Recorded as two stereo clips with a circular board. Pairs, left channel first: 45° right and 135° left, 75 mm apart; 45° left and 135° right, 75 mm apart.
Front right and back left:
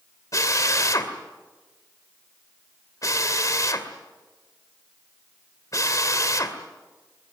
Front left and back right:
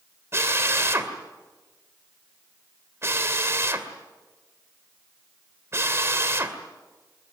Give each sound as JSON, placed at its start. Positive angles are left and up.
{"t": 0.3, "sound": "a drill", "azimuth_deg": -80, "distance_m": 2.5}